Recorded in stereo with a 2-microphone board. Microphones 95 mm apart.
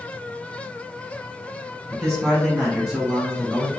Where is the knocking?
No knocking in this recording.